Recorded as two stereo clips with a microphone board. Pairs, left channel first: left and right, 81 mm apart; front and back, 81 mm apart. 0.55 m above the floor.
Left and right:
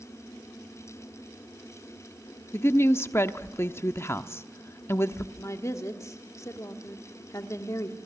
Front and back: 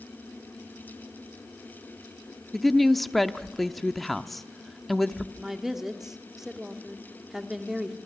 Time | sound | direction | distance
2.5 | a woman speaking | 85° left | 0.8 m
5.4 | a woman speaking | 100° left | 1.4 m